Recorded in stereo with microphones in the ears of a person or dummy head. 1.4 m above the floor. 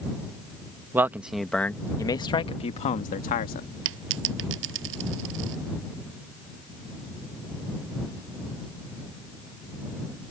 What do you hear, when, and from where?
0.9 s a man speaking: 20° right (ahead or behind); by 3.7 s 45° left (ahead or behind)
3.9 s a dropped coin: 80° right